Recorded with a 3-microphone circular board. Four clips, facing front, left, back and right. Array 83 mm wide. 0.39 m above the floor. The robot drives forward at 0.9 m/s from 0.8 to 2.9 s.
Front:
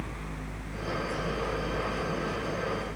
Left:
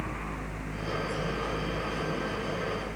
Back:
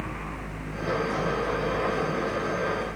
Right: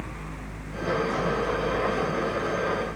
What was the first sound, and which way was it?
Only background noise.